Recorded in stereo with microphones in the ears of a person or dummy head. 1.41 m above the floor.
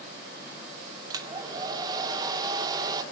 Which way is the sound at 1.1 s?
25° right (ahead or behind).